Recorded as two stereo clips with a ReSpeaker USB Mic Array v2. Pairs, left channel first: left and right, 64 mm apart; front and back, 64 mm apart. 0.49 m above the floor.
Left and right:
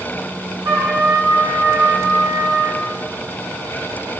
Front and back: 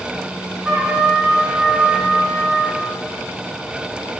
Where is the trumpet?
100° right, 4 m.